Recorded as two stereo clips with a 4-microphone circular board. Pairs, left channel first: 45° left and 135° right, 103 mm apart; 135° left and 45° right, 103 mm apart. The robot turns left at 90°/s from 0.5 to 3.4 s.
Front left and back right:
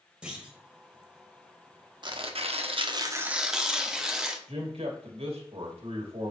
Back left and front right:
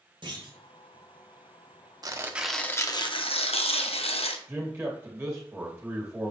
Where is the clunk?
55° right, 2 m; by 0.6 s 65° right, 2 m.